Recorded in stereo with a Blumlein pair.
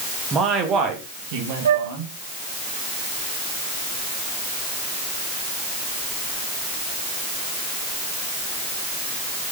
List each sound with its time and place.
0.3 s a man speaking: 20° right, 3 m; by 2.1 s 55° right, 4 m
1.6 s a flute: 65° right, 1.2 m